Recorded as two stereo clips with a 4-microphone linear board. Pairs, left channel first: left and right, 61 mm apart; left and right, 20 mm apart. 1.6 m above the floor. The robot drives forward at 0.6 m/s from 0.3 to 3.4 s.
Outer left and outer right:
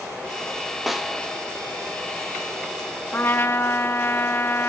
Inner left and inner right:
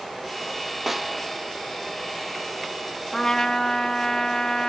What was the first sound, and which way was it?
A snare drum, 5° right (ahead or behind).